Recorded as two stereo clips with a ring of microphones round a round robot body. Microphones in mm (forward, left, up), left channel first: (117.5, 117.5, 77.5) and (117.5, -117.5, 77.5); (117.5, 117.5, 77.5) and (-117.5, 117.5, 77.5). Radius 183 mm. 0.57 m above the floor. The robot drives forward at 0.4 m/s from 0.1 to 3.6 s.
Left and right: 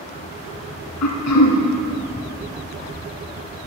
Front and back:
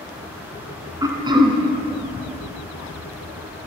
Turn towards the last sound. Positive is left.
turn(degrees=130)